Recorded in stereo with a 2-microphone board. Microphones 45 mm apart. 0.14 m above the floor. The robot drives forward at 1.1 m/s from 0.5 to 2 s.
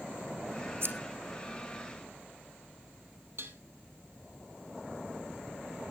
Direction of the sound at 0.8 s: 60° right (ahead or behind).